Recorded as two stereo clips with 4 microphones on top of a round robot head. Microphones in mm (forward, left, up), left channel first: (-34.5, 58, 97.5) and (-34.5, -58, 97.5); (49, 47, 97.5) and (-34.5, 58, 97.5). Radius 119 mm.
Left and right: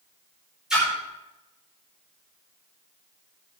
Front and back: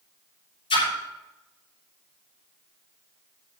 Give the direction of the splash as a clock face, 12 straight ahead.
12 o'clock.